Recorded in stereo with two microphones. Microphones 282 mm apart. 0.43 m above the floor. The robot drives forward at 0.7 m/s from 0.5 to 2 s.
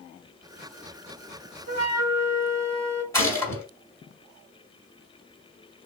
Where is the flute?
65° right (ahead or behind), 0.7 m.